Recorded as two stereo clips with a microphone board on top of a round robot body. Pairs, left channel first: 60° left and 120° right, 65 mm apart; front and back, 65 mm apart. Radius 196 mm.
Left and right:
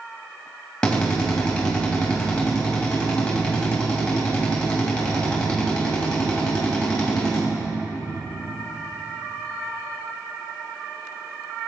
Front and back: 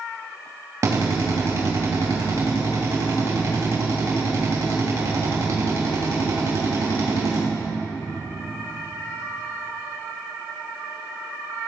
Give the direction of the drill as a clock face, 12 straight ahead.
7 o'clock.